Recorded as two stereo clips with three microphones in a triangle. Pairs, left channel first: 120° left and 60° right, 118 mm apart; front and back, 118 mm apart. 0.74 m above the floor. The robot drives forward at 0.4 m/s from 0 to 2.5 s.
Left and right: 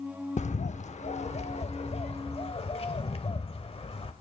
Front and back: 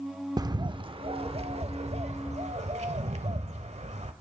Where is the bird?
120° left, 0.6 m; by 4.1 s 155° left, 1.3 m.